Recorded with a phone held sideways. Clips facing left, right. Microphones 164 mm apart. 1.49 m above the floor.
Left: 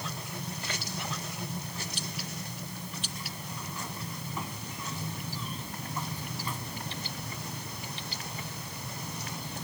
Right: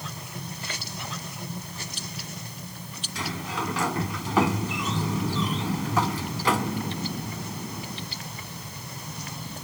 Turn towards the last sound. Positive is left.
turn(degrees=-80)